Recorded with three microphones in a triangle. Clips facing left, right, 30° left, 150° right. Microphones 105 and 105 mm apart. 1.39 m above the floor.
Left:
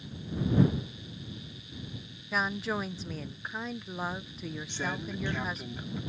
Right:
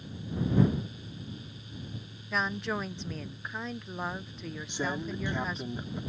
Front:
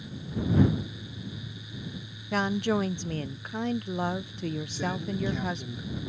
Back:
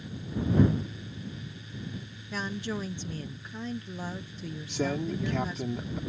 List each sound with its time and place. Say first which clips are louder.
2.3 s a woman speaking: even, front 8 dB; straight ahead
4.7 s a man speaking: right 4 dB, back 2 dB; 165° right